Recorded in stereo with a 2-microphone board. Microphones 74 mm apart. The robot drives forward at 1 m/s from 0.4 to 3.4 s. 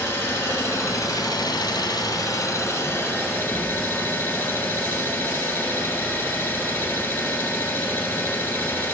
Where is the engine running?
30° left (ahead or behind), 1.6 m; by 8.9 s 25° left (ahead or behind), 1.9 m.